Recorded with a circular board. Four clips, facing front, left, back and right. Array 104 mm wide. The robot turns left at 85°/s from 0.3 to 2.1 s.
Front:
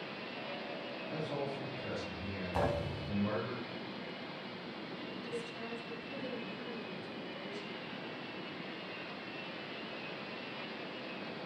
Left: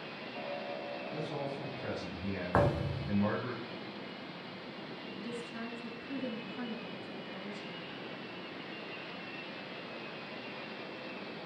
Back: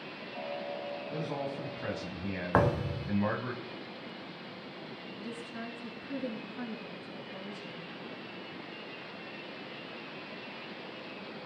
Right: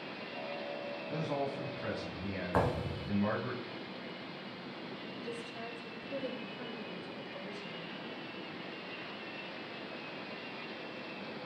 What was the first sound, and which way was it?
A man speaking, 105° right.